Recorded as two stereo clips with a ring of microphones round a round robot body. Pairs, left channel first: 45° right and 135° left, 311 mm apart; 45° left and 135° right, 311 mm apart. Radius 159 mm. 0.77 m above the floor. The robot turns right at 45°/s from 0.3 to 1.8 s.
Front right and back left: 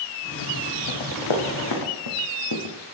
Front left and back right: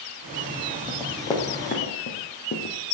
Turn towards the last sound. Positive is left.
turn(degrees=-15)